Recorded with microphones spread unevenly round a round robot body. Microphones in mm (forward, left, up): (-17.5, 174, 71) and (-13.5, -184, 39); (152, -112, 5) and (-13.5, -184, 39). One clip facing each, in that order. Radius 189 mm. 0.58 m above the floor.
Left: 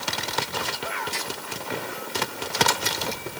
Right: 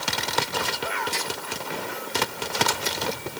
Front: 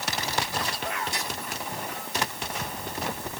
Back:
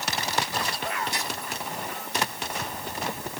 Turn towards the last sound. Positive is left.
No sound to turn to.